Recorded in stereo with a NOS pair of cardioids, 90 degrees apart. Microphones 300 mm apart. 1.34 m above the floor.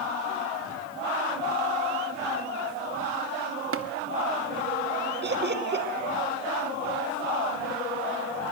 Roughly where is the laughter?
Ahead right.